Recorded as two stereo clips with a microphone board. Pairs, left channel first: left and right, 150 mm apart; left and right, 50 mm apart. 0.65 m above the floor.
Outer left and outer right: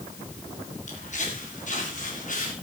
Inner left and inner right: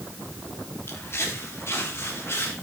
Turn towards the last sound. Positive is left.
turn(degrees=60)  # may be behind; listen again after turning